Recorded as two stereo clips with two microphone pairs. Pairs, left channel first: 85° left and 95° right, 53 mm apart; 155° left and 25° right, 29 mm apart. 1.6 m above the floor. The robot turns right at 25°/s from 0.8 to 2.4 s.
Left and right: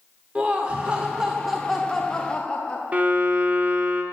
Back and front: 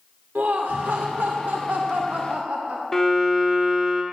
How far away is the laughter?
About 0.7 m.